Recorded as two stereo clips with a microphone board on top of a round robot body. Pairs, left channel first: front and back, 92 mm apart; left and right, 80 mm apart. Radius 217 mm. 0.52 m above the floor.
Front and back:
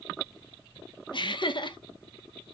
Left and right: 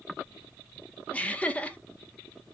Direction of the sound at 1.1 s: 20° left.